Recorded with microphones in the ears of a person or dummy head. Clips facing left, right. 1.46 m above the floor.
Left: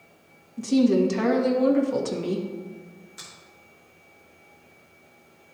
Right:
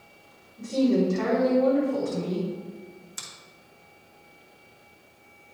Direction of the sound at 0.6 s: 75° left (ahead or behind).